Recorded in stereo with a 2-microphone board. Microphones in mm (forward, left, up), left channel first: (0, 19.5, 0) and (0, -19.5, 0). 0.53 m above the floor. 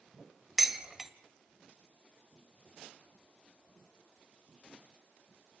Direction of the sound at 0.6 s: 5° right (ahead or behind).